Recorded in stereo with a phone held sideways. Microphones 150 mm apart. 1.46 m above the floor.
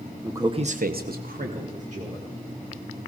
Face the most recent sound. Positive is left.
turn(degrees=-45)  # may be behind; listen again after turning